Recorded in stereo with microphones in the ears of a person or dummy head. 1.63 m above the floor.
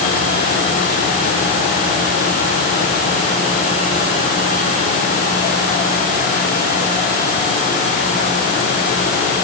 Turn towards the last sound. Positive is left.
No sound to turn to.